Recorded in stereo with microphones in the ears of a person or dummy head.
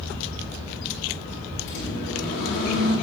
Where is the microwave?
75° left (ahead or behind), 4.5 m.